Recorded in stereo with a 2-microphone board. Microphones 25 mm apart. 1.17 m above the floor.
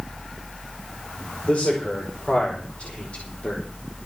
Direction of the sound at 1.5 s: 70° left (ahead or behind).